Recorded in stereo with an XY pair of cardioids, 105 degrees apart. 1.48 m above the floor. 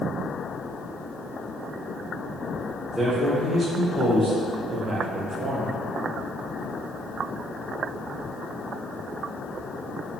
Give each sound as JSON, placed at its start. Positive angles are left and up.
{"t": 2.9, "sound": "a man speaking", "azimuth_deg": -30, "distance_m": 2.0}